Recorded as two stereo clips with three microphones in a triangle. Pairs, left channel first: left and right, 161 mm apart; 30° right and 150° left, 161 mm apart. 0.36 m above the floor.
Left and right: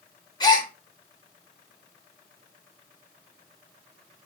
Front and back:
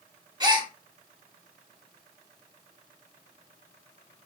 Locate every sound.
0.4 s a gasp: 120° left, 0.7 m